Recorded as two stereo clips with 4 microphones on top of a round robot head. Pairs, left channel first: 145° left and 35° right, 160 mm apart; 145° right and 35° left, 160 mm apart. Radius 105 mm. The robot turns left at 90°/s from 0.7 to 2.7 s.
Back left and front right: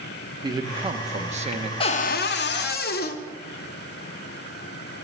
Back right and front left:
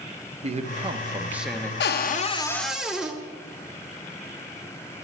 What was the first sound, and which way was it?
A man speaking, 15° left.